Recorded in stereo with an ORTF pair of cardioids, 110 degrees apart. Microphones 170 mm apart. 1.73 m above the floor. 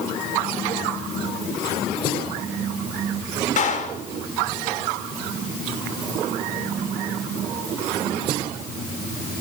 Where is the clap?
45° left, 6 m.